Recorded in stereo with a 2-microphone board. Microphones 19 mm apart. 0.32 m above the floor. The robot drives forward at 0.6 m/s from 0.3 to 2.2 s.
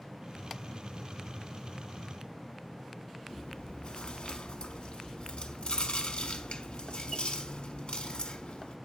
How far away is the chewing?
About 0.6 m.